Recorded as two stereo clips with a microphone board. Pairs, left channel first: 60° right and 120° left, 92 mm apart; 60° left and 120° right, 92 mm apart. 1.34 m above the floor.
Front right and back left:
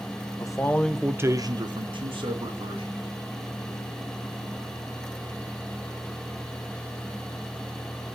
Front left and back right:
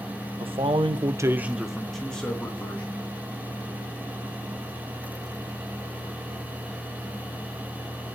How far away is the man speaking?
About 1.1 m.